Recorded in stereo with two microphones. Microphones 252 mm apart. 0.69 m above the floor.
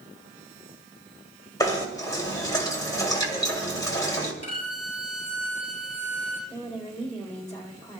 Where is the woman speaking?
25° left (ahead or behind), 2.5 m.